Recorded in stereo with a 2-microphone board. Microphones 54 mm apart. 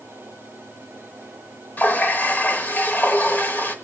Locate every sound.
1.8 s a running tap: 35° left (ahead or behind), 1.1 m